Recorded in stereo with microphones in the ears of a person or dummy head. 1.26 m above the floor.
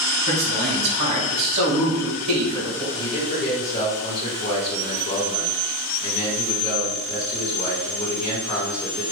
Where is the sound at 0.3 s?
50° right (ahead or behind), 1.4 m.